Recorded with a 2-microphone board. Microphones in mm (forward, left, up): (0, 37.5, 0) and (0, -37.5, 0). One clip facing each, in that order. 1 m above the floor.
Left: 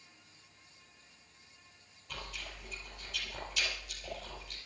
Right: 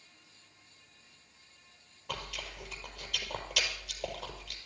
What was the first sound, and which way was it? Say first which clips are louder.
Chewing: right 4 dB; 80° right.